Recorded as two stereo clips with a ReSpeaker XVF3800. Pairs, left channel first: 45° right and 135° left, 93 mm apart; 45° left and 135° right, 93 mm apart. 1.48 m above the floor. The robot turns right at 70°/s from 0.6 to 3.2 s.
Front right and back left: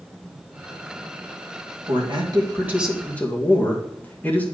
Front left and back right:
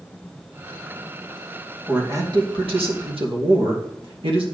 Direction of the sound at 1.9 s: 150° left.